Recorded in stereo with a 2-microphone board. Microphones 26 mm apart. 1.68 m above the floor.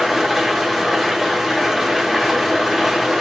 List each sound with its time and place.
0.0 s an engine running: 5° left (ahead or behind), 1.0 m